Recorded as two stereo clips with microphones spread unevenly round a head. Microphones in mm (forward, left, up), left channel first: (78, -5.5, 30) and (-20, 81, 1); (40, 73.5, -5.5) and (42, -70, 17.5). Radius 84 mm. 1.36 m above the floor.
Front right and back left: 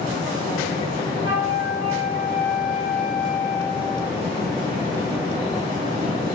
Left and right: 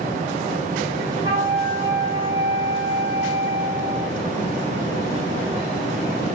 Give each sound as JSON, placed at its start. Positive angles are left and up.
{"t": 1.2, "sound": "a flute", "azimuth_deg": -160, "distance_m": 3.0}